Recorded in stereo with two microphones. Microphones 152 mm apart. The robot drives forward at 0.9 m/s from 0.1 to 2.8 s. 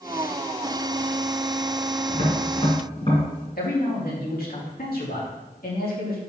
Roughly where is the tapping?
Left.